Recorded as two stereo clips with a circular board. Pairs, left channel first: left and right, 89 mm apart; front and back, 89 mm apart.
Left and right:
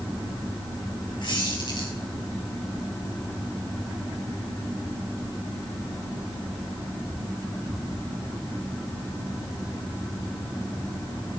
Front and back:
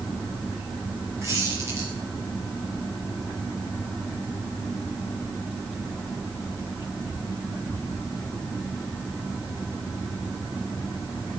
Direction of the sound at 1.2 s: 125° left.